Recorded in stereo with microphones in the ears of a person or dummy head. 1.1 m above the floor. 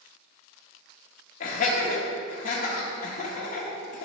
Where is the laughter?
45° left (ahead or behind), 1.3 m.